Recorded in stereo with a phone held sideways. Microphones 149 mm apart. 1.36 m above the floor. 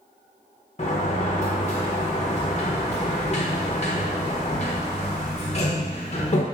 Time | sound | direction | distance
0.8 | a sliding door | 45° left (ahead or behind) | 0.9 m